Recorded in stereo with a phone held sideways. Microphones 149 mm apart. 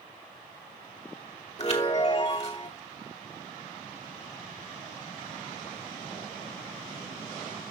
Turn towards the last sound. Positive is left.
turn(degrees=45)  # may be behind; listen again after turning